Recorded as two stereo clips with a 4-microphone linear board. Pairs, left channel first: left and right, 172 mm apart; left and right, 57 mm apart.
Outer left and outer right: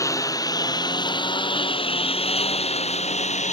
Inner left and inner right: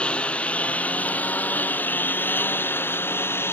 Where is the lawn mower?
20° left (ahead or behind); by 3.5 s 45° left (ahead or behind).